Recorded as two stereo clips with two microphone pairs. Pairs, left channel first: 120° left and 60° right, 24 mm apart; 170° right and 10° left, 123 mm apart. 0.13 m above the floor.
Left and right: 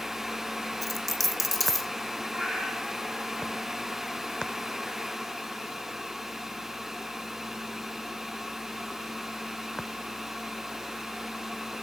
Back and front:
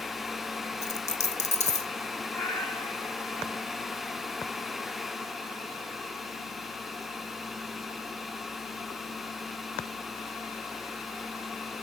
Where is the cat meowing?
95° right, 4.5 m.